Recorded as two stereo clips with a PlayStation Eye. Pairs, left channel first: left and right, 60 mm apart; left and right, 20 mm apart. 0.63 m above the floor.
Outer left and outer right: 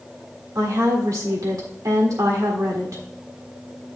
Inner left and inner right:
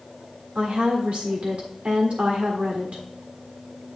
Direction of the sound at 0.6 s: 65° right (ahead or behind).